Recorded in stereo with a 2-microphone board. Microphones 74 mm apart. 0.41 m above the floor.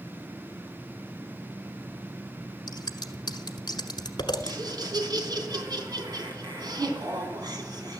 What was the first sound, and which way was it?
Scissors, 80° left.